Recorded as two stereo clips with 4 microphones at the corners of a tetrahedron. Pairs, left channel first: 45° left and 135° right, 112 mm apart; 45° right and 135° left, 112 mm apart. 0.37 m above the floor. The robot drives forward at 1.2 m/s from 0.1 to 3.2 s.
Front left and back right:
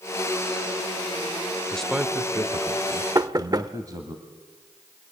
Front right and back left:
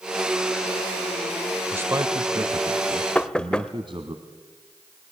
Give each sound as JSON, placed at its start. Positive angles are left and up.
{"t": 1.7, "sound": "a man speaking", "azimuth_deg": 110, "distance_m": 0.8}
{"t": 3.1, "sound": "knocking", "azimuth_deg": -110, "distance_m": 0.8}